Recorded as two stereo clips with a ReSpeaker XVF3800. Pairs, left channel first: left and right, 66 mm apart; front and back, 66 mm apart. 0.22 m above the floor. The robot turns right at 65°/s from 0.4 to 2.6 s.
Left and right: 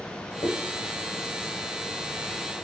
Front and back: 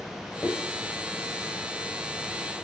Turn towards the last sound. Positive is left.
turn(degrees=-130)